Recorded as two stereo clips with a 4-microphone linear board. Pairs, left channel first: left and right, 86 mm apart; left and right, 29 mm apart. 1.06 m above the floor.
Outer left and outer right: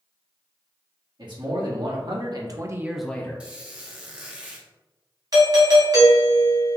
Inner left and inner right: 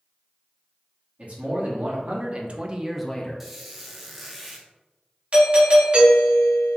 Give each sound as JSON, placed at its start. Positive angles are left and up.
{"t": 1.2, "sound": "a man speaking", "side_deg": -60, "distance_m": 1.9}
{"t": 3.4, "sound": "a squeak", "side_deg": -15, "distance_m": 0.8}
{"t": 5.3, "sound": "a doorbell", "side_deg": -45, "distance_m": 1.2}